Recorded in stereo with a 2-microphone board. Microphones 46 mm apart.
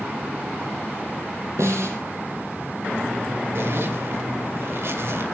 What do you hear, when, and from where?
1.6 s a snare drum: 85° right, 5 m
3.5 s a zipper: 60° right (ahead or behind), 2.5 m